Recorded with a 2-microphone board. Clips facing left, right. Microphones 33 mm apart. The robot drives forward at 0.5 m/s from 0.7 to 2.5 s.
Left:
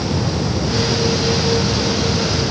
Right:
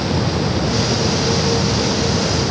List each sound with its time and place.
Only background noise.